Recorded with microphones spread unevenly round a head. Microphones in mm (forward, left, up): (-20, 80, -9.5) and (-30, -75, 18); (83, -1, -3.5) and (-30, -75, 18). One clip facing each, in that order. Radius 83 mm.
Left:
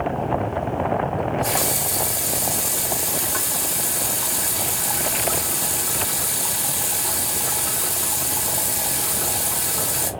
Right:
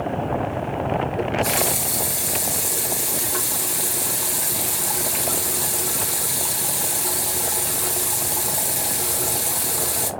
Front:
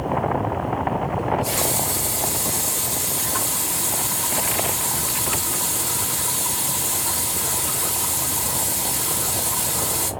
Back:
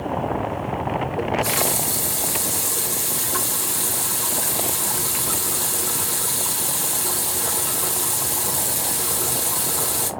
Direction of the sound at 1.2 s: 175° right.